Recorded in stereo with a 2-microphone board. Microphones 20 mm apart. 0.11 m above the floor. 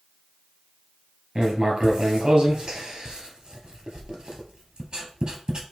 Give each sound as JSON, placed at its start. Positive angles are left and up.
{"t": 1.4, "sound": "writing", "side_deg": -40, "distance_m": 2.5}